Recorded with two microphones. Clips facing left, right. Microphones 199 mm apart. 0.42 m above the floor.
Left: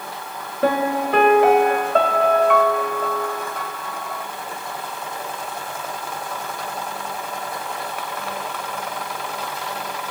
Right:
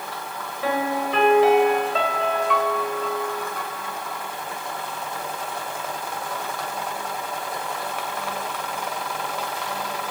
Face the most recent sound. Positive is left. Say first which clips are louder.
# left 5 dB
turn(degrees=55)  # may be behind; listen again after turning